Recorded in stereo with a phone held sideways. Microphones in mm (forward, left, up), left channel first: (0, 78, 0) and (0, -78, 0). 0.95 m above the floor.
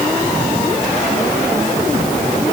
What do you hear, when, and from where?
Only background noise.